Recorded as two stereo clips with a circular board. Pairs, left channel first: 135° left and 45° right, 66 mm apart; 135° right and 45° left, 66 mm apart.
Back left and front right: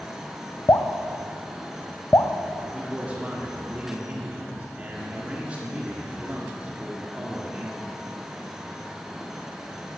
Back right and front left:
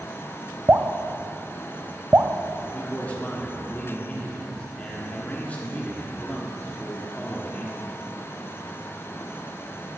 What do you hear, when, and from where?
0.7 s dripping: 95° left, 0.6 m
2.7 s a man speaking: 95° right, 1.3 m